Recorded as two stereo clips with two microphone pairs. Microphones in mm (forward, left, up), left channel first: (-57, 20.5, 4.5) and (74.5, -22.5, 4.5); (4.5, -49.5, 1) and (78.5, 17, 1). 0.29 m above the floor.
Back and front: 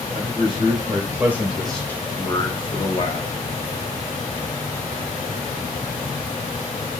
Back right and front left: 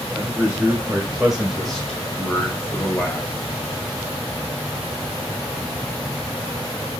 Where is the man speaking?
20° right, 1.4 m; by 3.3 s 160° left, 1.4 m.